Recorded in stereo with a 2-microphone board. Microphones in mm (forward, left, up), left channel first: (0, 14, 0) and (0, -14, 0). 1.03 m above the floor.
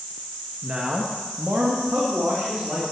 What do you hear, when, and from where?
0.6 s a man speaking: 40° right (ahead or behind), 1.3 m; by 2.8 s 80° right, 3.5 m